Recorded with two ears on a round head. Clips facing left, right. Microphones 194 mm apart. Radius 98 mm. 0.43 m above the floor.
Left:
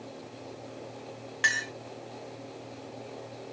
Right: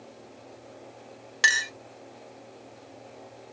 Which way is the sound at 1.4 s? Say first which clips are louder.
Right 4 dB; 50° right (ahead or behind).